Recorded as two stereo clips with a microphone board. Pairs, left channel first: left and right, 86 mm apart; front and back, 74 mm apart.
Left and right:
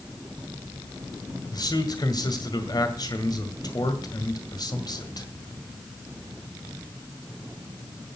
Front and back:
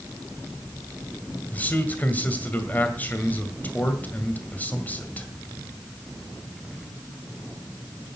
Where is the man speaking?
65° left, 1.9 m.